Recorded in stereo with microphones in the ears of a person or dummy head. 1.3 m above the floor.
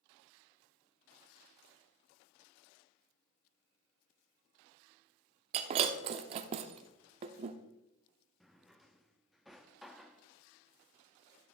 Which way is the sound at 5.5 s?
35° right (ahead or behind).